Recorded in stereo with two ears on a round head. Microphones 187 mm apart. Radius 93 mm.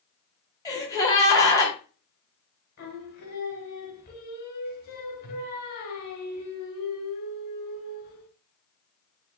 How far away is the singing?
About 2.5 m.